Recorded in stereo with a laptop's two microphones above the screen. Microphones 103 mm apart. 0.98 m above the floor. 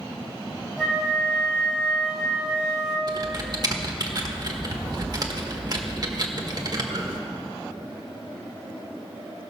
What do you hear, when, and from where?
0.8 s a flute: centre (ahead or behind), 2.0 m
3.1 s typing on a keyboard: 40° right (ahead or behind), 1.3 m